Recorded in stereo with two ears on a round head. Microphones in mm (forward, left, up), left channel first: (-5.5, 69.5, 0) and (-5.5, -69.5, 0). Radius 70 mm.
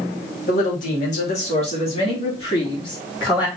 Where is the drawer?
I don't hear a drawer.